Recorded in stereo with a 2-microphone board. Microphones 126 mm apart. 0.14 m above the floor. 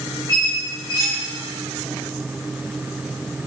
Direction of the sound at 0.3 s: 30° right (ahead or behind).